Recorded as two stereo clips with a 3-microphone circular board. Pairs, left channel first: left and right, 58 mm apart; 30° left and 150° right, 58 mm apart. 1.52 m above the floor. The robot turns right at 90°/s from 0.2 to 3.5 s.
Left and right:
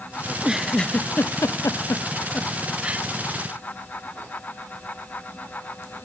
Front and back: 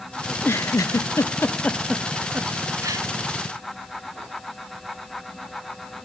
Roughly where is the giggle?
Ahead right.